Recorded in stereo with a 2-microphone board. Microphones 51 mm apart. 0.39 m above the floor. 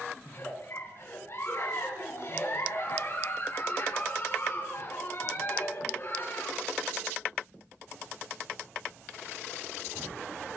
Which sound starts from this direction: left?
A giggle, at 0.2 s.